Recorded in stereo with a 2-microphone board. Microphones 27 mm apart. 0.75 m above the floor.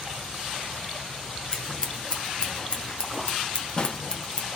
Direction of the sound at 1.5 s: 35° left (ahead or behind).